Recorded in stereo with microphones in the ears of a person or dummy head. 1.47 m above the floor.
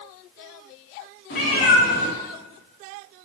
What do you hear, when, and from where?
1.3 s a cat meowing: 45° left (ahead or behind), 1.3 m